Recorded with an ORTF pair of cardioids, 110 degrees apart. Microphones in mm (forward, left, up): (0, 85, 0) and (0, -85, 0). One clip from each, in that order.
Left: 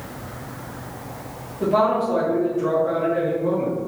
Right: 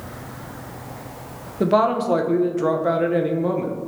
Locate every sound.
1.6 s a woman speaking: 70° right, 0.6 m